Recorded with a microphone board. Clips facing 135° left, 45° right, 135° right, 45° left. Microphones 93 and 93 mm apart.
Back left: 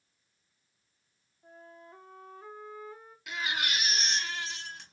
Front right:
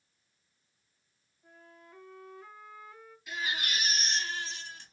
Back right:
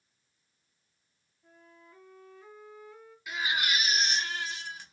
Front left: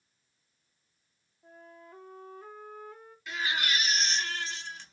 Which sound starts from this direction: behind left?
A baby crying, at 3.3 s.